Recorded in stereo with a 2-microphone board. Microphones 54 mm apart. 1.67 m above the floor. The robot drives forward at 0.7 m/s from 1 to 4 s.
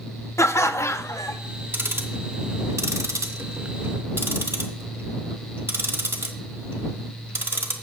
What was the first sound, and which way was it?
Laughter, 60° left (ahead or behind).